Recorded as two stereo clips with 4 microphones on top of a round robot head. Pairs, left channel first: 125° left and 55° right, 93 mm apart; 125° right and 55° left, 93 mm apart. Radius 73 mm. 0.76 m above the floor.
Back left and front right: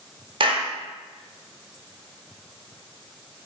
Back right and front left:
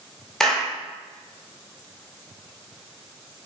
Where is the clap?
40° right, 1.3 m.